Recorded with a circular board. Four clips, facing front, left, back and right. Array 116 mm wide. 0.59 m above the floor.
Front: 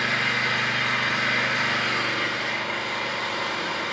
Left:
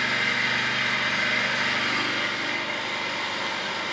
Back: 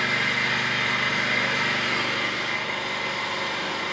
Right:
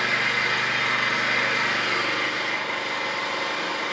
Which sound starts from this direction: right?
An engine running, at 0.0 s.